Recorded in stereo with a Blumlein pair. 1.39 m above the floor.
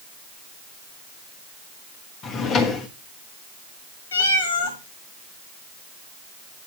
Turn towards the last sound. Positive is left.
turn(degrees=70)